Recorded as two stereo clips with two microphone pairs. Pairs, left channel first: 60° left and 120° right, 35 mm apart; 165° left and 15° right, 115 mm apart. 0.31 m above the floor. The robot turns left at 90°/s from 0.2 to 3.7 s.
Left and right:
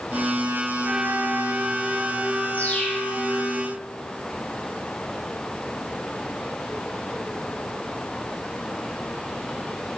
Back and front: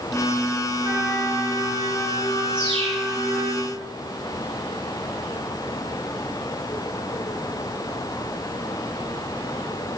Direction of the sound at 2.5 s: 35° left.